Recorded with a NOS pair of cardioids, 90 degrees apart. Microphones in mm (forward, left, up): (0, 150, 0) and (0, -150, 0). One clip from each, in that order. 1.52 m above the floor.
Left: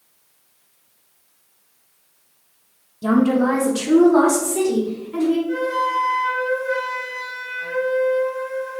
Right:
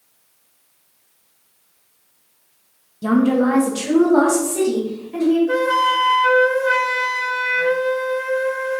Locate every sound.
3.0 s a woman speaking: 5° right, 0.6 m
5.5 s a flute: 65° right, 0.6 m